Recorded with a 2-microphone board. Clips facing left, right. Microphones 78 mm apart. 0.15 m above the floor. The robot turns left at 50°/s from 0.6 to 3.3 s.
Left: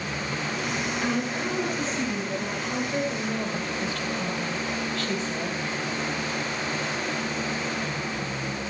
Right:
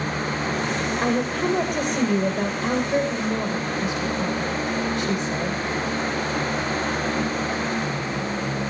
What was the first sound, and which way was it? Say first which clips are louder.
A woman speaking: right 7 dB; 50° right.